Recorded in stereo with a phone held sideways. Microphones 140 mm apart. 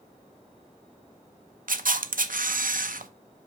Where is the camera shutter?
80° right, 0.6 m.